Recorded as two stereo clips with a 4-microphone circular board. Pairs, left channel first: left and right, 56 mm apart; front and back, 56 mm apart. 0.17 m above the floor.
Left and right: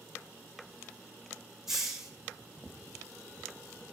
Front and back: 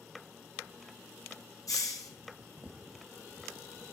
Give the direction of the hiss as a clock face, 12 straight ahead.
12 o'clock.